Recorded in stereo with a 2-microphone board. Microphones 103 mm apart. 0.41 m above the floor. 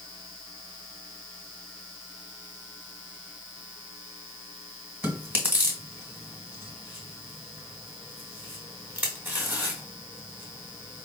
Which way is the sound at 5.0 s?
20° right (ahead or behind).